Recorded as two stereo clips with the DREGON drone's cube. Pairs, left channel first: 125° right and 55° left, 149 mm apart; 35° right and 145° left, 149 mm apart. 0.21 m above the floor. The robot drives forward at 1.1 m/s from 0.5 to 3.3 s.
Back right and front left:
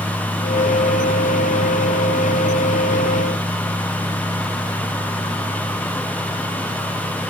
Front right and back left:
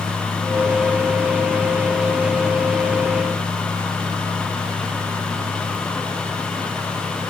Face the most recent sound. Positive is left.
No sound to turn to.